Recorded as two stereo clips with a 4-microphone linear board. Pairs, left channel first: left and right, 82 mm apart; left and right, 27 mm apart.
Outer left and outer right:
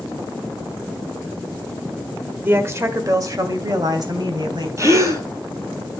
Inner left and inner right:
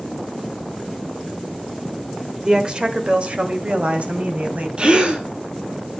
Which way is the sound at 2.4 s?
25° right (ahead or behind).